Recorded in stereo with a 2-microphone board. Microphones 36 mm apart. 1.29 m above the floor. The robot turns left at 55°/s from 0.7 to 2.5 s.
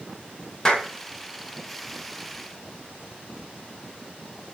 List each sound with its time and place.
0.7 s a clap: 15° left (ahead or behind), 1.4 m; by 0.9 s centre (ahead or behind), 1.4 m